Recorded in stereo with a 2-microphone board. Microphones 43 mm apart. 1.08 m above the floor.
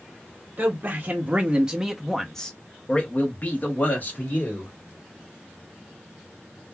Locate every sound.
0.6 s a man speaking: 40° right (ahead or behind), 1.0 m; by 4.7 s 50° left (ahead or behind), 1.6 m